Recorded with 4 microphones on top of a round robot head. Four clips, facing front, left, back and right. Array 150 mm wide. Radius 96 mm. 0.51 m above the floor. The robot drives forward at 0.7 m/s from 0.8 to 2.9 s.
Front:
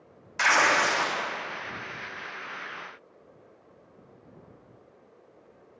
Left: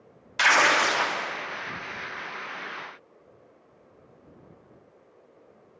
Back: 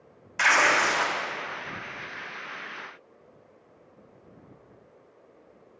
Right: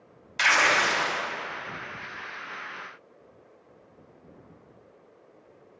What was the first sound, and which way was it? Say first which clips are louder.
Tearing paper: left 2 dB, even; 95° left.